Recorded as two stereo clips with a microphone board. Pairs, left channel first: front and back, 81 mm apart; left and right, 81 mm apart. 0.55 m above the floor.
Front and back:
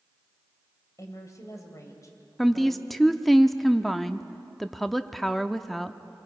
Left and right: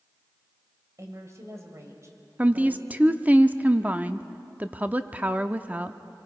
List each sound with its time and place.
1.0 s a woman speaking: 45° right, 3 m
2.4 s a woman speaking: 85° right, 0.6 m